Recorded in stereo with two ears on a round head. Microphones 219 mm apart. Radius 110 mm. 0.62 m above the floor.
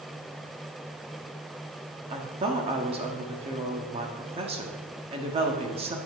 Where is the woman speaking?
25° right (ahead or behind), 1.2 m.